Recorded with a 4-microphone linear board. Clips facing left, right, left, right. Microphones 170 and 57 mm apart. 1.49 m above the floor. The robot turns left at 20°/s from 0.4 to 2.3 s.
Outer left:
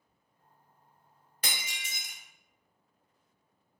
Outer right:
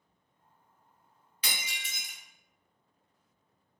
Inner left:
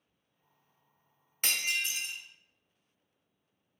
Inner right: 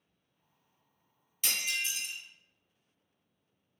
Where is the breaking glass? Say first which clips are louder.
Outer left 1 dB, inner left 2 dB; 50° left (ahead or behind), 0.8 m; by 2.1 s 45° left (ahead or behind), 0.8 m.